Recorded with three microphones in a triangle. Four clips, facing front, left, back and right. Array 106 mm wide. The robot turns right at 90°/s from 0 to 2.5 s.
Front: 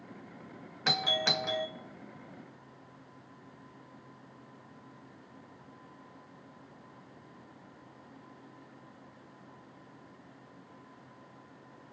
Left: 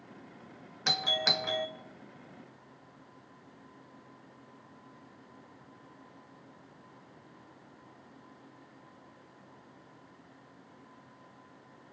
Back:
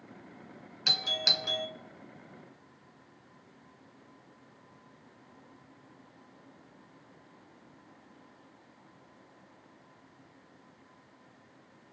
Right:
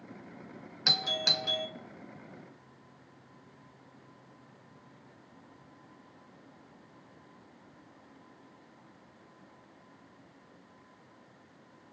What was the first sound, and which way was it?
A doorbell, 10° left.